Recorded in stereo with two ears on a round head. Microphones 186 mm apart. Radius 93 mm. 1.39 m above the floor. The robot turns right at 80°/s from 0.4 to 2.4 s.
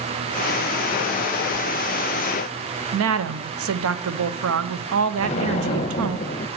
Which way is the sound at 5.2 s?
30° left (ahead or behind).